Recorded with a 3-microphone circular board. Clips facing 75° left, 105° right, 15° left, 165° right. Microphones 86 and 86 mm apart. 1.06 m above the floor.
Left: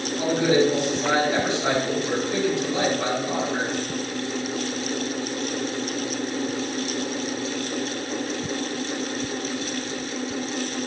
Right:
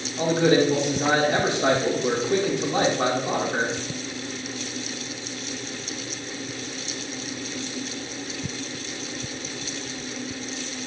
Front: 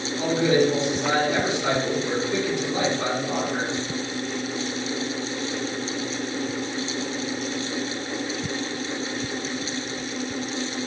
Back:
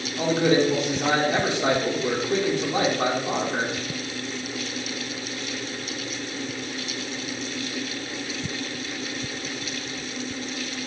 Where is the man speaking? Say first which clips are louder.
Right 1 dB, even; 135° right, 2 m.